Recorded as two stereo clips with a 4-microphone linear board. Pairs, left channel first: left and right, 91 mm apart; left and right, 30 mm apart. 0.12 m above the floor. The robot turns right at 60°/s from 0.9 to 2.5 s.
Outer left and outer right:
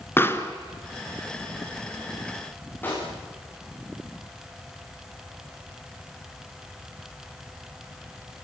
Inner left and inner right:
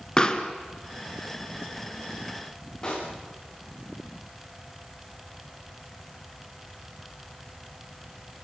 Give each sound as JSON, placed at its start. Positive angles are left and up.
{"t": 0.2, "sound": "a pop", "side_deg": 25, "distance_m": 1.7}
{"t": 2.8, "sound": "a pop", "side_deg": 20, "distance_m": 7.0}